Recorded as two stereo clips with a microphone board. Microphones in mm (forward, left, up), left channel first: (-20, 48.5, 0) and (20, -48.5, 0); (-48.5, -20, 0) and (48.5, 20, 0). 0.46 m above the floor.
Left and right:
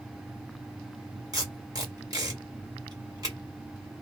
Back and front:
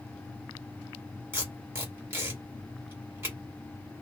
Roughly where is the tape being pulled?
Ahead right.